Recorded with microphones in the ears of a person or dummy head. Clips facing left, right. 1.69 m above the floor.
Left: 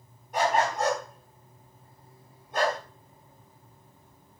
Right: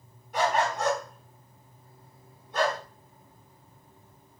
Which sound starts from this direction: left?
A dog barking, at 0.3 s.